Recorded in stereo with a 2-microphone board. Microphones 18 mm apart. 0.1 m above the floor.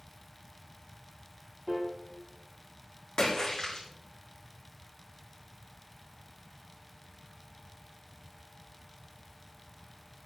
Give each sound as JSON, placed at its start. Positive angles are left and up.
{"t": 1.7, "sound": "a piano", "side_deg": -40, "distance_m": 2.5}
{"t": 3.2, "sound": "a splash", "side_deg": 45, "distance_m": 3.5}